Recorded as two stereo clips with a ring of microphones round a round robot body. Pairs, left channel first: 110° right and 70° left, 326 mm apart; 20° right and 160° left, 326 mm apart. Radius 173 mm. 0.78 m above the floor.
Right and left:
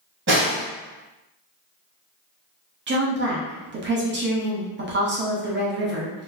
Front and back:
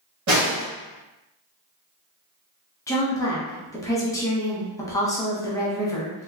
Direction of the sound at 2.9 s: 50° left.